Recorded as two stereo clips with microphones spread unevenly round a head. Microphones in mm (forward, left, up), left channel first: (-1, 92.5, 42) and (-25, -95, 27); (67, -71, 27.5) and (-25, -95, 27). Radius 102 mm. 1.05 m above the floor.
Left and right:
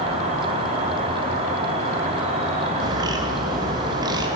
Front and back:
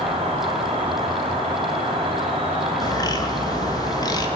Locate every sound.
0.0 s an insect: 150° right, 3 m
2.8 s a bird: 30° right, 1.5 m